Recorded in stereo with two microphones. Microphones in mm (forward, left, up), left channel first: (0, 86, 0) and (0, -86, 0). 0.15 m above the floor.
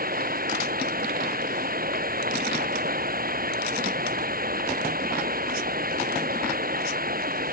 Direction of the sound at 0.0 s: 55° right (ahead or behind).